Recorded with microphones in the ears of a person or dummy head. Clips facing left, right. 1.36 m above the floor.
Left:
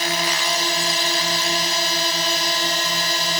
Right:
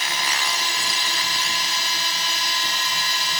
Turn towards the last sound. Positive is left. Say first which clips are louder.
# left 5 dB
turn(degrees=40)  # may be behind; listen again after turning